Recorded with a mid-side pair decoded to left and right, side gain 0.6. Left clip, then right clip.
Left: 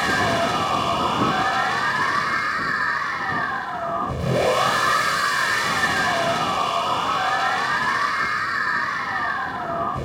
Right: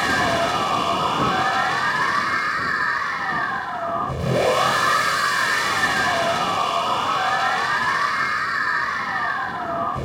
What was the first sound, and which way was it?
A machine running, 5° right.